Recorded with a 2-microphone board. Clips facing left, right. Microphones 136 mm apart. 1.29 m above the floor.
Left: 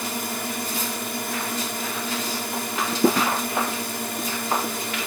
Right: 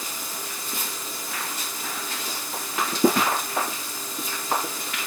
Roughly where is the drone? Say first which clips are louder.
Left 8 dB; left.